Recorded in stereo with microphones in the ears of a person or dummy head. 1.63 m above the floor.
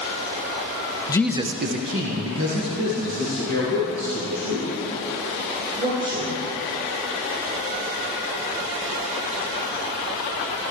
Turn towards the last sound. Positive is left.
turn(degrees=-85)